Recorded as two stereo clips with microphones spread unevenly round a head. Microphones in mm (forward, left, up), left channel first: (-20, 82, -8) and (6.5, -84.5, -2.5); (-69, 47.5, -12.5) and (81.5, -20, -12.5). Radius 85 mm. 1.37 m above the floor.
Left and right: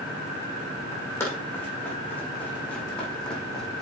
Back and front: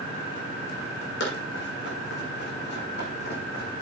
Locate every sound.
1.2 s running footsteps: 175° left, 5.5 m; by 3.8 s 170° right, 4.5 m